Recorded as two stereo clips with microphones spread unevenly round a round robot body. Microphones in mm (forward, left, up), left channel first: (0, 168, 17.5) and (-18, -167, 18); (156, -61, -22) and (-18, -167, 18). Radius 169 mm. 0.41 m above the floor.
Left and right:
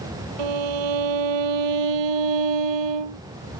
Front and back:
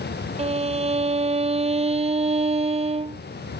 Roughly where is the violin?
Right.